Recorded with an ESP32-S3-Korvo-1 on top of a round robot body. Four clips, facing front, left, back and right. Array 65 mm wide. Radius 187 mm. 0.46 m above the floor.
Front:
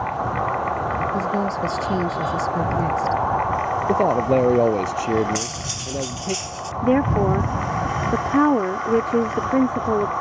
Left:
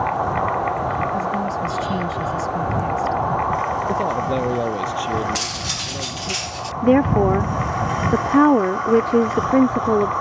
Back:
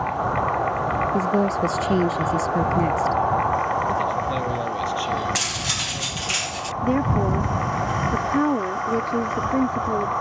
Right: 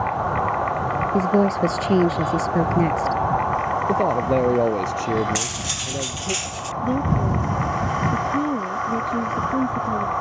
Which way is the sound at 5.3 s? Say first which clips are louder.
Left 1 dB, back 1 dB; 165° left.